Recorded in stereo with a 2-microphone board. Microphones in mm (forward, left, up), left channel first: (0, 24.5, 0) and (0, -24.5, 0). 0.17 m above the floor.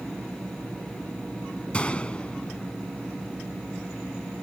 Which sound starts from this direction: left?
A gunshot, at 1.7 s.